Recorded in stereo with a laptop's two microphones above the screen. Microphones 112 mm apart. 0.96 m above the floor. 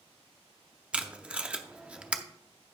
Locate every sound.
0.9 s tape being pulled: 10° right (ahead or behind), 0.6 m